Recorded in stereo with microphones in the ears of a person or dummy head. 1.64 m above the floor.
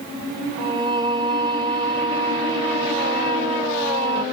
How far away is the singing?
About 0.9 m.